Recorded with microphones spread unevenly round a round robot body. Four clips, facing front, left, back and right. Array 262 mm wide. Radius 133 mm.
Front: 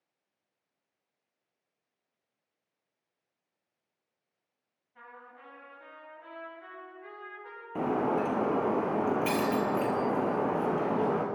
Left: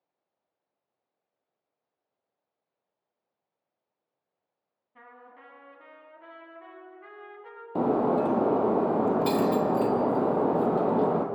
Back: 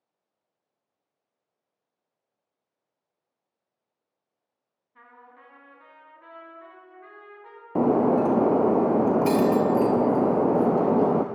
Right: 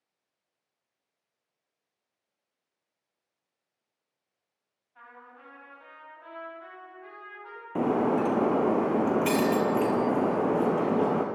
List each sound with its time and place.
5.0 s a trumpet: 110° left, 4.5 m
7.8 s breaking glass: 170° right, 2.0 m